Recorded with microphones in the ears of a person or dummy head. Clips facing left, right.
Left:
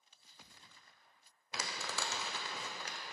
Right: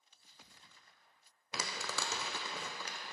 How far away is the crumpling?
About 0.6 m.